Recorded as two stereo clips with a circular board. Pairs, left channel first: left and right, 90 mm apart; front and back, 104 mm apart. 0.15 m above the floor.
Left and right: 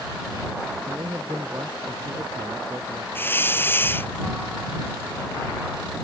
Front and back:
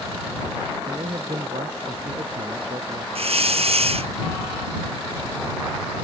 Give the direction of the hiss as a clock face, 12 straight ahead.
7 o'clock.